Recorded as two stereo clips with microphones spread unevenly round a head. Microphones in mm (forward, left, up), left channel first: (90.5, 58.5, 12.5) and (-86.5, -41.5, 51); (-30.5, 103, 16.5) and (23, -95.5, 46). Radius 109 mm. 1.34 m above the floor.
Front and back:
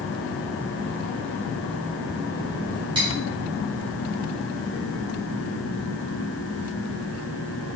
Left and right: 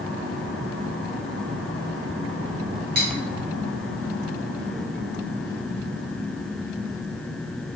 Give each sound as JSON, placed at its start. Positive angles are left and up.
{"t": 3.0, "sound": "cutlery clinking", "azimuth_deg": -100, "distance_m": 0.9}